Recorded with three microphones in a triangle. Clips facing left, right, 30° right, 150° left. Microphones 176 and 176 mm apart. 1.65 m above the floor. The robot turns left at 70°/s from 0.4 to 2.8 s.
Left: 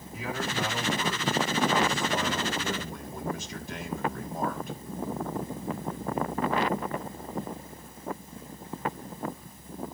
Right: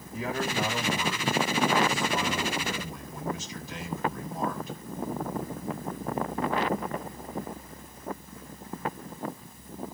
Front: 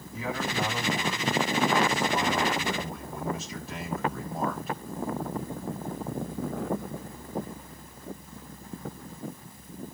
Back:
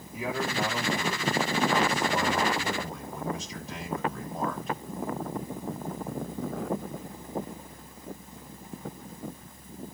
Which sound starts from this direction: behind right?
A man speaking, at 0.1 s.